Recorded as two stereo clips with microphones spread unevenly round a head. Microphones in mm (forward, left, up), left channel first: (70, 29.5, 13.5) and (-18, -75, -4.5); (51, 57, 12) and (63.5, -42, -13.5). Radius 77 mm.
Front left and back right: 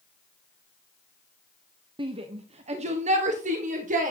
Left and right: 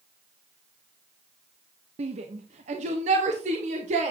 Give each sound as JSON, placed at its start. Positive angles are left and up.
{"t": 2.0, "sound": "a shout", "azimuth_deg": -75, "distance_m": 1.1}